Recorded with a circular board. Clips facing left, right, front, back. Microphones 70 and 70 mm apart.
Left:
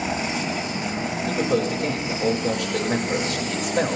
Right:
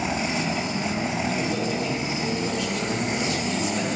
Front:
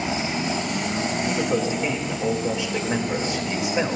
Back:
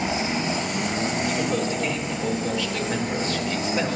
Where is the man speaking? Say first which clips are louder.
Left 3 dB, front 1 dB; 70° left, 3.5 m.